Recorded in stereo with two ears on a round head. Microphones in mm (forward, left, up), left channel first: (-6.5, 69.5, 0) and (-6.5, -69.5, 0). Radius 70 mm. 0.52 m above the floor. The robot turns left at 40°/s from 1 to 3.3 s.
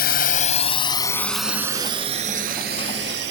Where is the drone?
70° left (ahead or behind); by 3.3 s 80° right.